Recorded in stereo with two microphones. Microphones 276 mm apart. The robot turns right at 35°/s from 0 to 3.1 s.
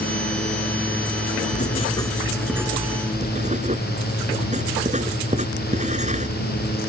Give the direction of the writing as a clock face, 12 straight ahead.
7 o'clock.